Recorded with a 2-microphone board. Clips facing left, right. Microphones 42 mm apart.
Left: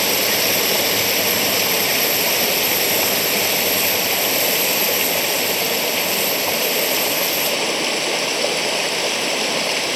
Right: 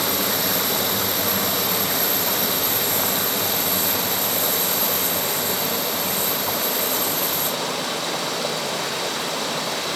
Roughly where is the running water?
Left.